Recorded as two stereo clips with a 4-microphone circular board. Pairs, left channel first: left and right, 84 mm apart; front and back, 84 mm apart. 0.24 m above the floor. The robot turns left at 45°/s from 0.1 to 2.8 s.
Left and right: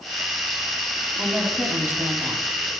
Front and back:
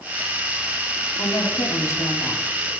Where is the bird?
I don't hear a bird.